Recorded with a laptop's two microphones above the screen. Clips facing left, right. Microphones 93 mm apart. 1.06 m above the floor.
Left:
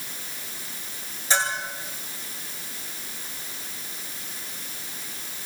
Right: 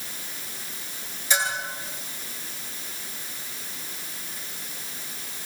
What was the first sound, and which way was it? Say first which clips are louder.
A bell: left 1 dB; 35° left (ahead or behind).